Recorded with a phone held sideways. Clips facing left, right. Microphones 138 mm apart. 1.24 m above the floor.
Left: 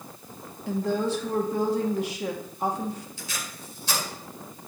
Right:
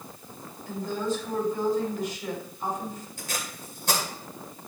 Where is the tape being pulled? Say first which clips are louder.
Right 2 dB; 55° right (ahead or behind), 2 m.